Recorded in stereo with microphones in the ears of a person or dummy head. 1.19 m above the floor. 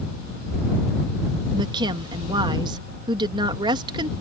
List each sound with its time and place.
1.5 s a woman speaking: 25° right (ahead or behind)